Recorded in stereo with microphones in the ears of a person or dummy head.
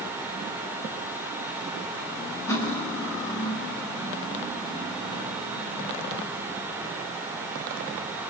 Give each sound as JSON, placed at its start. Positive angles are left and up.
{"t": 2.5, "sound": "cutlery clinking", "side_deg": 15, "distance_m": 5.0}